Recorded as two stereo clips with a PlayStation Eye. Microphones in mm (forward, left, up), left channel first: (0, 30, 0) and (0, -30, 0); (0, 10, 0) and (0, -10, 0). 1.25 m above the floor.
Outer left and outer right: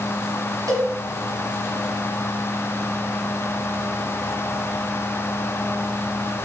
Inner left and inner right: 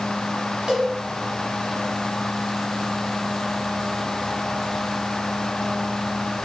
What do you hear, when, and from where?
0.7 s a cowbell: 70° right (ahead or behind), 4 m